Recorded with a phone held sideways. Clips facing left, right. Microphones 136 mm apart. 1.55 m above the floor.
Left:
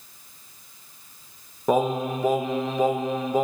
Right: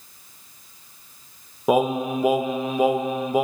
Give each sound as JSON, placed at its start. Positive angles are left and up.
{"t": 1.7, "sound": "singing", "side_deg": -10, "distance_m": 0.6}